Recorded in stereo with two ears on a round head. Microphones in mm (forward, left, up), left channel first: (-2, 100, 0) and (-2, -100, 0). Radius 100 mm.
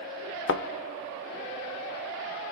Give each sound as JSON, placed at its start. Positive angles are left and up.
{"t": 0.5, "sound": "a thud", "side_deg": 55, "distance_m": 0.7}